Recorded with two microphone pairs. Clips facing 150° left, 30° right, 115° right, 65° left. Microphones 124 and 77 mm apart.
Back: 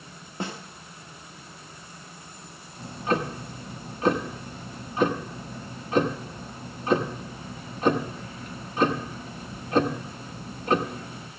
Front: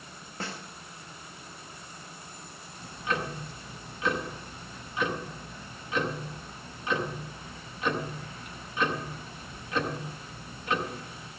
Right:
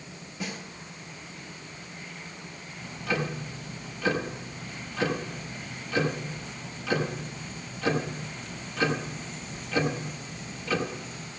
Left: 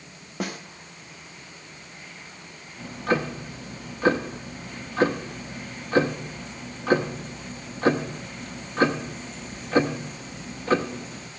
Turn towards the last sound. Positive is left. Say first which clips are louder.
# back 6 dB, left 5 dB
turn(degrees=105)